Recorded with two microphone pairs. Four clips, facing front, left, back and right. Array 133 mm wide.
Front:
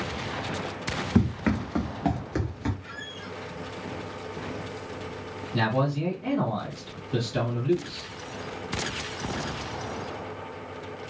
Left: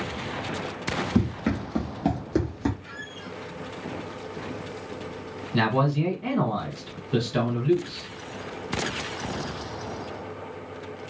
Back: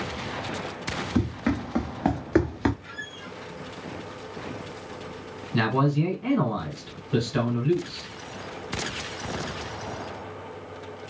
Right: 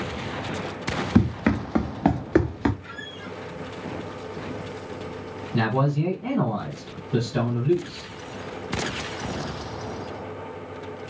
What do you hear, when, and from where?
1.1 s running footsteps: 80° right, 0.8 m; by 2.7 s 150° right, 0.5 m
2.8 s a squeak: 90° right, 1.3 m
5.5 s a man speaking: 135° left, 1.6 m